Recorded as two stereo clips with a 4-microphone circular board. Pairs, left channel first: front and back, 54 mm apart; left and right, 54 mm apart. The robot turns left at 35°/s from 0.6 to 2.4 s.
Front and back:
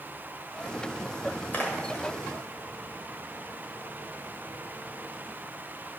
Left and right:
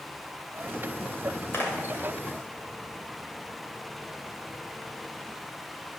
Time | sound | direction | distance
1.5 | a splash | 50° left | 1.8 m